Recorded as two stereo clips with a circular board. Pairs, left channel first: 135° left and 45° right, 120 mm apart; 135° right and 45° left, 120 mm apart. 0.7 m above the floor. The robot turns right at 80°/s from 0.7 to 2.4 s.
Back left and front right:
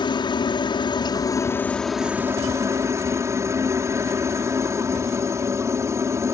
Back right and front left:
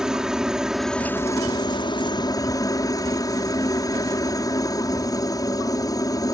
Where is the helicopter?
125° left; by 6.3 s 95° right.